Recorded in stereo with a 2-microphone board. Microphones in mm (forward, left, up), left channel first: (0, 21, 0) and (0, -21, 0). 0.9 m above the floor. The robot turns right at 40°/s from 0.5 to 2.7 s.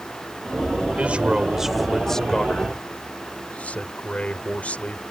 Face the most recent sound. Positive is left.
turn(degrees=35)